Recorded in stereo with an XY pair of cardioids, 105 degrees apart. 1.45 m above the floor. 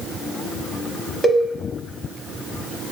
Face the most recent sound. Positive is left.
turn(degrees=10)